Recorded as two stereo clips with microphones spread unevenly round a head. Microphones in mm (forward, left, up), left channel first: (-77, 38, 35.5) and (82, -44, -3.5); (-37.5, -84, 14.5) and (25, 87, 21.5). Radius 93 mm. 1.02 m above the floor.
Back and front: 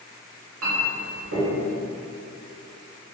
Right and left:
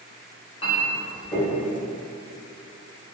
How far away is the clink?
About 1.0 m.